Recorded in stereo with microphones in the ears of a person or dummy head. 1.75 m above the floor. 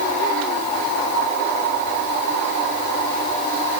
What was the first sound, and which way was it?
Only background noise.